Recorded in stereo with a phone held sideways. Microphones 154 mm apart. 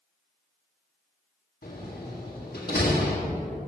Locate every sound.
1.6 s a door slam: 75° left (ahead or behind), 1.7 m